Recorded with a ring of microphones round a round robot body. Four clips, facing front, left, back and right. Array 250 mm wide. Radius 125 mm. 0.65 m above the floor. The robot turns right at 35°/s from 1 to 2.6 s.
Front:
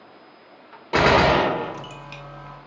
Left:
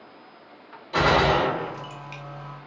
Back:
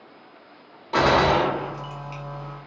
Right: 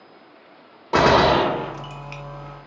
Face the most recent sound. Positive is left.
turn(degrees=-15)